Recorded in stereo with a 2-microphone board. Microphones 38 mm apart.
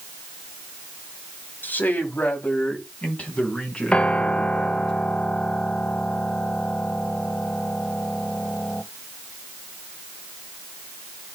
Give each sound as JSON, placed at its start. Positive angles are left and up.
{"t": 1.6, "sound": "a man speaking", "side_deg": 50, "distance_m": 2.5}
{"t": 3.9, "sound": "a piano", "side_deg": 30, "distance_m": 0.6}